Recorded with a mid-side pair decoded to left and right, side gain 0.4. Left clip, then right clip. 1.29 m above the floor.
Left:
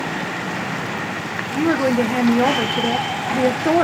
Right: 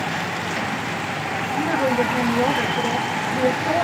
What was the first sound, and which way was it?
A woman speaking, 65° left.